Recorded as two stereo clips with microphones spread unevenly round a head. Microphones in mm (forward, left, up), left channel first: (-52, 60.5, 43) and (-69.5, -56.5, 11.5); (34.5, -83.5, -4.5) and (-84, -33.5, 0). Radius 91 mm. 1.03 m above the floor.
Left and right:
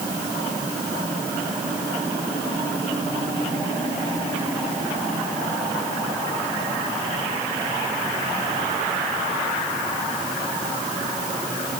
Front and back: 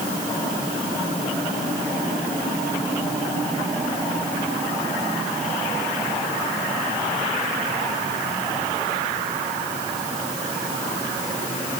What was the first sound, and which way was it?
Only background noise.